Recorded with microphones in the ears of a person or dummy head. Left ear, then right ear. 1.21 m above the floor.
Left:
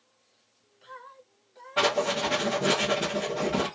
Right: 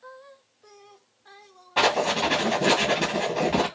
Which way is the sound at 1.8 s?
20° right (ahead or behind).